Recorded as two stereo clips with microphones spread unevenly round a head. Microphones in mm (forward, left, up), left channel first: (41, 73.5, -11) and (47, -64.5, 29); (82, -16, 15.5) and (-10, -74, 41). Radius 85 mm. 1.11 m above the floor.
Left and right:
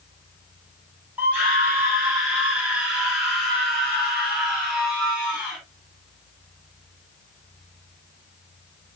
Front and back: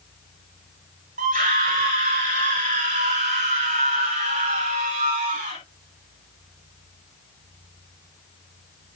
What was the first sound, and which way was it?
A scream, 175° right.